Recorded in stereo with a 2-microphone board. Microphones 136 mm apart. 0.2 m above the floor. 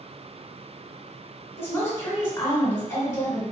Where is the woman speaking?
20° left (ahead or behind), 1.8 m.